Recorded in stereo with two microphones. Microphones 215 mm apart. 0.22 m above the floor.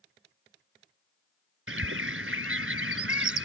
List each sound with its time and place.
1.7 s a bird: 75° right (ahead or behind)